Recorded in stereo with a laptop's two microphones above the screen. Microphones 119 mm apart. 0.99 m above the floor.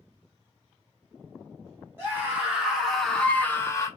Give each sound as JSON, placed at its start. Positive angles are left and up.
{"t": 2.0, "sound": "a scream", "side_deg": -15, "distance_m": 1.2}